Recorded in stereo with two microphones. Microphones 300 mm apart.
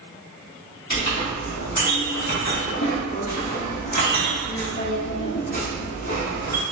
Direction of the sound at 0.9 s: 60° left (ahead or behind).